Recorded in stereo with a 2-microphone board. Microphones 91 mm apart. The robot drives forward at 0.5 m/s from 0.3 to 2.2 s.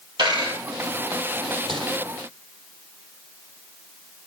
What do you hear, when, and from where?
0.2 s a dropped coin: 50° right (ahead or behind), 5.5 m
1.7 s crumpling: 65° right (ahead or behind), 2.5 m